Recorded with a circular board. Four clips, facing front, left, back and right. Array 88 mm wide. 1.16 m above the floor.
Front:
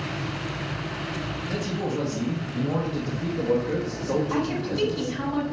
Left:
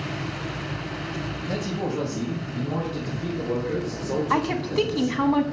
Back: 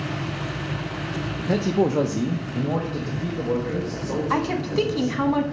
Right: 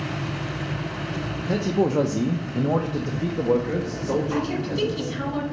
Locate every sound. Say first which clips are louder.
1.4 s a man speaking: right 8 dB, back 10 dB; 165° right, 0.6 m; by 5.2 s 70° right, 1.9 m
4.3 s a woman speaking: left 2 dB, back 3 dB; 130° left, 1.0 m